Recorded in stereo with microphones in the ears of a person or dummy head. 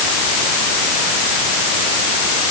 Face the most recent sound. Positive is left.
No sound to turn to.